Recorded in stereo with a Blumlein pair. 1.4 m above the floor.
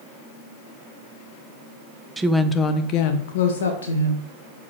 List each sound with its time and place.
2.2 s a woman speaking: 10° right, 0.7 m; by 4.3 s 70° left, 1.7 m